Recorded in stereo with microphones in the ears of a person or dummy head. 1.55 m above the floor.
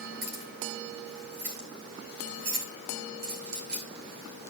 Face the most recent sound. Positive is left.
turn(degrees=-60)  # may be behind; listen again after turning